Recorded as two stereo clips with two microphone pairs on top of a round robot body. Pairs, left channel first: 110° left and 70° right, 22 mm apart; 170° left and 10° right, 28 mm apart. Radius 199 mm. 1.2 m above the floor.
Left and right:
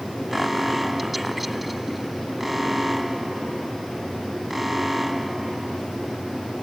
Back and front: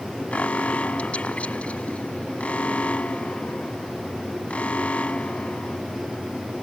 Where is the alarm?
150° right.